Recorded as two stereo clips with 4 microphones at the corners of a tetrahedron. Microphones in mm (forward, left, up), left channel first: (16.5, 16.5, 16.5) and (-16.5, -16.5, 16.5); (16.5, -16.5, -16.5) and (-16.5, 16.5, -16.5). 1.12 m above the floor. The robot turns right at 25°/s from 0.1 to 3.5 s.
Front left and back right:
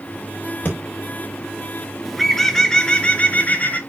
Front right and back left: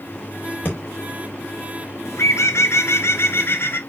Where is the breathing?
Straight ahead, 4 m.